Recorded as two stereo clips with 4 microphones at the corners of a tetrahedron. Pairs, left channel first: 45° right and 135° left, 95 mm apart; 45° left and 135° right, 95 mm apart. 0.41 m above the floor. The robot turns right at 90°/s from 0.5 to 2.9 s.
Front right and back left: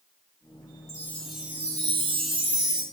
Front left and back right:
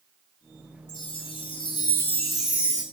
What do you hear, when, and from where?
0.9 s a chime: 5° left, 3 m; by 2.8 s straight behind, 3 m